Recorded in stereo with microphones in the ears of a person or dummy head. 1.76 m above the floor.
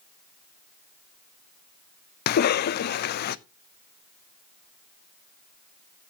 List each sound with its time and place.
2.3 s a cough: 55° left (ahead or behind), 0.5 m